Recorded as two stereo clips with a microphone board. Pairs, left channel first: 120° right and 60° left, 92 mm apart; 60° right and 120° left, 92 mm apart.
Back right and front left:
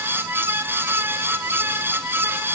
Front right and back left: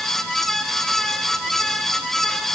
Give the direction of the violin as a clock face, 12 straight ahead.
I don't hear a violin.